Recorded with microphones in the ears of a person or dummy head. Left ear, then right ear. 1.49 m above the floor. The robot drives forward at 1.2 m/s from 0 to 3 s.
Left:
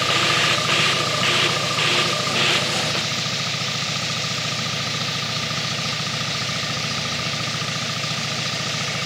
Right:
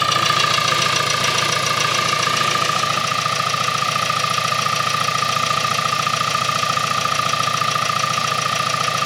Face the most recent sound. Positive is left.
turn(degrees=-50)  # may be behind; listen again after turning